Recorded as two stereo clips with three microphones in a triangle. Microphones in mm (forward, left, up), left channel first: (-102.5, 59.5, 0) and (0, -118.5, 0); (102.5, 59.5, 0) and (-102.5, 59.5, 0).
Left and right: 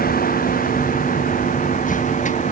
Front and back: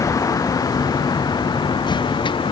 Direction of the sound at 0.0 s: 75° left.